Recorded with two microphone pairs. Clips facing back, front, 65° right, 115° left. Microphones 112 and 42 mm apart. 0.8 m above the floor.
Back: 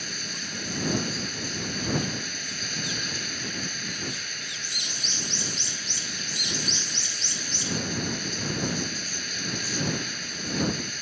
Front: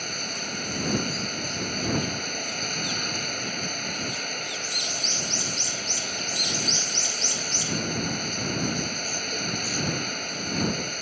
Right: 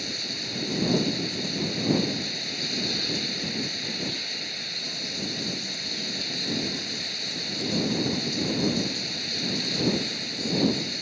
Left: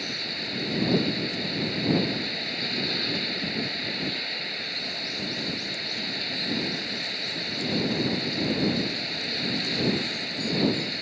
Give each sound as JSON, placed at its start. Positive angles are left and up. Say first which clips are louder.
{"t": 0.0, "sound": "running water", "louder": "front 4 dB, left 1 dB", "azimuth_deg": 40}